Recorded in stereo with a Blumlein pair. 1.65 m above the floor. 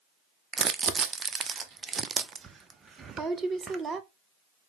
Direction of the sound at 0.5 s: 20° right.